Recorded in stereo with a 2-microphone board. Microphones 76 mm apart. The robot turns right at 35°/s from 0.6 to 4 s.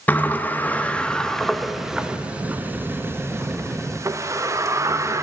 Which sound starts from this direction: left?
A sliding door, at 0.1 s.